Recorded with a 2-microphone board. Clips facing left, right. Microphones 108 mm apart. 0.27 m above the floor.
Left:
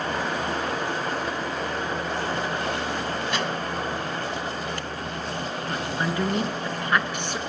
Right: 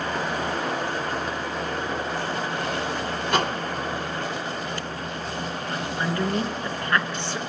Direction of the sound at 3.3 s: 55° right (ahead or behind).